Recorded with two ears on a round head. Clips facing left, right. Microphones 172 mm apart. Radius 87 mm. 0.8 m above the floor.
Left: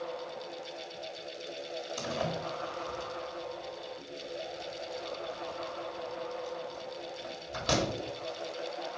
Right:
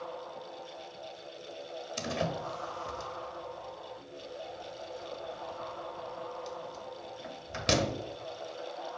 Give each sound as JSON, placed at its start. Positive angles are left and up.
{"t": 2.0, "sound": "a door slam", "side_deg": -25, "distance_m": 1.1}